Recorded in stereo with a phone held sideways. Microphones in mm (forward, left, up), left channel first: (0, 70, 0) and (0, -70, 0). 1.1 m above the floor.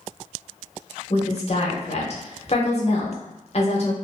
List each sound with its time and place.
1.1 s a woman speaking: 50° left (ahead or behind), 0.8 m